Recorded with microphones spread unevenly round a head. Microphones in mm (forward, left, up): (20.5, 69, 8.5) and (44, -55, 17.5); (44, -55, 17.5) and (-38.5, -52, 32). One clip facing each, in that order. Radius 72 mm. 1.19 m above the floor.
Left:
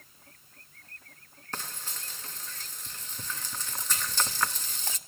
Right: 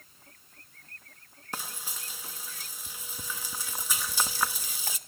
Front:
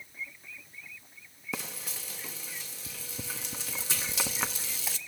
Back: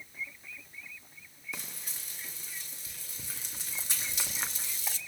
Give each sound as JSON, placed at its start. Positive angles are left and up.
{"t": 1.5, "sound": "frying", "azimuth_deg": 0, "distance_m": 1.3}